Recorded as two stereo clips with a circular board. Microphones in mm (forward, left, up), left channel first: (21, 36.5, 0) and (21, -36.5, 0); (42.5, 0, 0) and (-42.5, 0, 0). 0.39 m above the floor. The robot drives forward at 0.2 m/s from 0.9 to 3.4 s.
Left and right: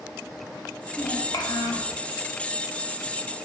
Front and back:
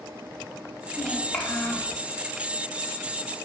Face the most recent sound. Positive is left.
turn(degrees=115)